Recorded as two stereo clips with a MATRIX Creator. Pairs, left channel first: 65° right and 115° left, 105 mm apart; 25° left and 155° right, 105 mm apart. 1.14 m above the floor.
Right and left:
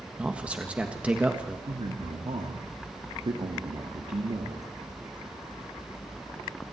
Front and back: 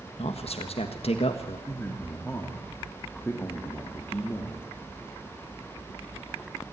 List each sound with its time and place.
0.2 s a man speaking: 35° left, 1.4 m
1.7 s a man speaking: 90° left, 1.9 m